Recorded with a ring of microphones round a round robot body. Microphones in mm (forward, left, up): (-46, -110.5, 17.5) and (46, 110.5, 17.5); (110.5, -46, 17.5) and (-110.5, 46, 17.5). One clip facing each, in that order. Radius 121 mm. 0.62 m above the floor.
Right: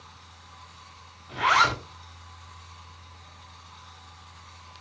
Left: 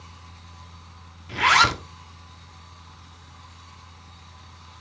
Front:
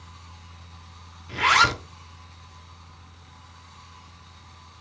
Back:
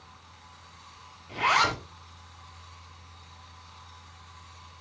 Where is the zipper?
30° left, 1.5 m.